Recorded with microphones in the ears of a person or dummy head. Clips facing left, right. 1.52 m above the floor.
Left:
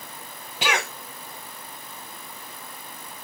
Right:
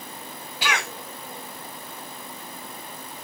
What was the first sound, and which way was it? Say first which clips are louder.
A cough: left 2 dB; 20° left (ahead or behind).